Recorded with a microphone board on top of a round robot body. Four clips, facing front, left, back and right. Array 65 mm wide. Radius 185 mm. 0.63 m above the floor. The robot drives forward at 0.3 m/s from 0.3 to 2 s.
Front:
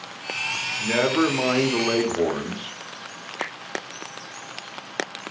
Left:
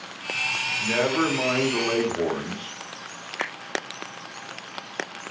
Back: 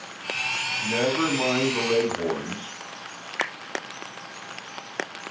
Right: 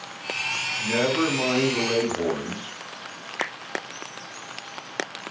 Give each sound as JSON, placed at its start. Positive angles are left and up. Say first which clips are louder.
{"t": 0.8, "sound": "a man speaking", "louder": "even, front 4 dB", "azimuth_deg": 20, "distance_m": 2.5}
{"t": 3.4, "sound": "a finger snap", "louder": "right 1 dB, back 3 dB", "azimuth_deg": -165, "distance_m": 3.5}